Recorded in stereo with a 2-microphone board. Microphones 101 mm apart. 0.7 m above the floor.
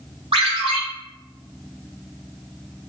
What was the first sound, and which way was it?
A ringtone, 70° right (ahead or behind).